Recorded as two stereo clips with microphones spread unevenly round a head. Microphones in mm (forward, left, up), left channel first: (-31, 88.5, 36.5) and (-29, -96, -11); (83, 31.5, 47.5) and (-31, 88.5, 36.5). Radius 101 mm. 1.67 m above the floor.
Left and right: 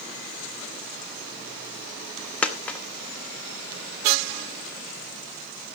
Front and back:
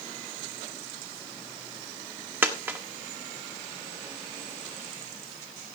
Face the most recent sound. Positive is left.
turn(degrees=90)